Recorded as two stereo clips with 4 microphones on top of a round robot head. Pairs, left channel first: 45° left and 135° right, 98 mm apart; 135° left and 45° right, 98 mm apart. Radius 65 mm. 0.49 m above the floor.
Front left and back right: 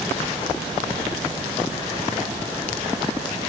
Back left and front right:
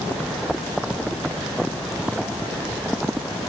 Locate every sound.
Only background noise.